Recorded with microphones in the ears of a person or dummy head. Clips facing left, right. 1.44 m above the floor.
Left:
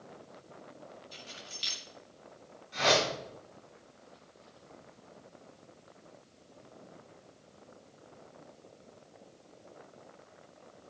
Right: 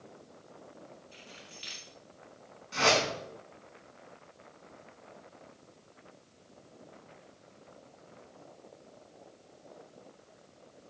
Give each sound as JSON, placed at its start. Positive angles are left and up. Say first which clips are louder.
{"t": 1.1, "sound": "keys jangling", "louder": "left 2 dB", "side_deg": 55, "distance_m": 2.0}
{"t": 2.7, "sound": "a whoosh", "louder": "even", "side_deg": -65, "distance_m": 6.5}